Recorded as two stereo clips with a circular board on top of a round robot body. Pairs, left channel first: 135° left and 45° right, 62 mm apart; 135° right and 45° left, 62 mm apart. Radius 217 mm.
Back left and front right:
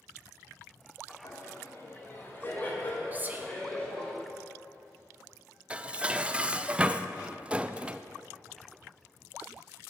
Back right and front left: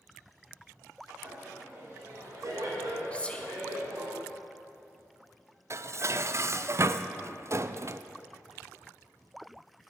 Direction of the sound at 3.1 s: 80° right.